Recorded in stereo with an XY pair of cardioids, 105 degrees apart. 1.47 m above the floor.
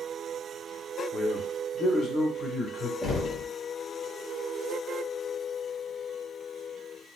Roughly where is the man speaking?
Ahead left.